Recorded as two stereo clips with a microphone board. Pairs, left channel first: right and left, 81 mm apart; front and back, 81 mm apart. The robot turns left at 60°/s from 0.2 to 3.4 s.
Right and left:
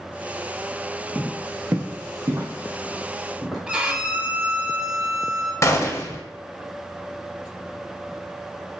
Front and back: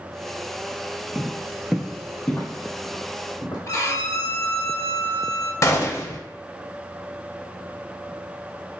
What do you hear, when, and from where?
1.1 s footsteps: 140° left, 0.6 m; by 3.6 s straight ahead, 1.5 m
3.7 s a violin: 20° left, 0.5 m
5.6 s a gunshot: 45° right, 0.5 m